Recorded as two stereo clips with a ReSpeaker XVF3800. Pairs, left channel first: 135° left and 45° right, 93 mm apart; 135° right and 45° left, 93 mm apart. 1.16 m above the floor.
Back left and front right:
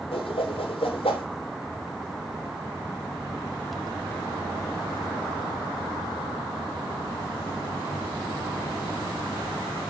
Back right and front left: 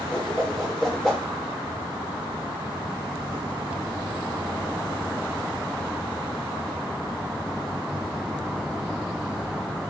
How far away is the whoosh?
About 3 m.